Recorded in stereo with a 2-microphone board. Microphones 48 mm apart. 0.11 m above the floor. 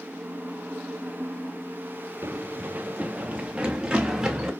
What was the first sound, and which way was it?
Running footsteps, 50° right (ahead or behind).